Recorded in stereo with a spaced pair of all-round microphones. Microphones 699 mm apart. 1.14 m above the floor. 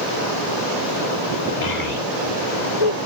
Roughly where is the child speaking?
Left.